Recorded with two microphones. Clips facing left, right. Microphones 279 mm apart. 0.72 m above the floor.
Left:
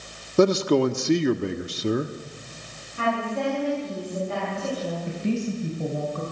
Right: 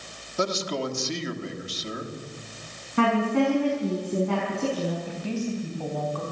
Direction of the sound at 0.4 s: 60° left (ahead or behind).